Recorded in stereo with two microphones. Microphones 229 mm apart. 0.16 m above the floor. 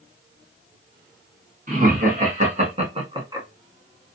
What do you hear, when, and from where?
1.7 s laughter: 40° right (ahead or behind), 2 m; by 3.5 s 20° right (ahead or behind), 1.3 m